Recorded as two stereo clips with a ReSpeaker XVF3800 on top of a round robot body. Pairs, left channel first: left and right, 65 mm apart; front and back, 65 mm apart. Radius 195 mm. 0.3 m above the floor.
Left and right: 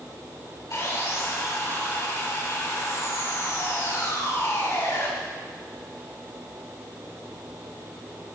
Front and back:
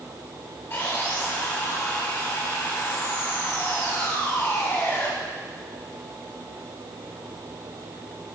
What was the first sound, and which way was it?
Sawing, 65° left.